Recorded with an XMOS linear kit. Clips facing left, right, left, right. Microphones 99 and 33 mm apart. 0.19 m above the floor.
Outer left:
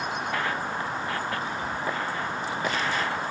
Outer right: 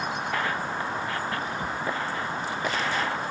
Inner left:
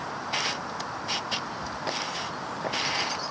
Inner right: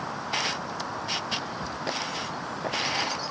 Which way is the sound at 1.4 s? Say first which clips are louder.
Even, even; 55° right (ahead or behind).